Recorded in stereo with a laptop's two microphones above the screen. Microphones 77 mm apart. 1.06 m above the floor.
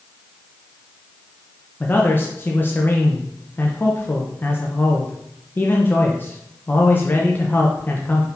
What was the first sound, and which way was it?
A man speaking, 25° left (ahead or behind).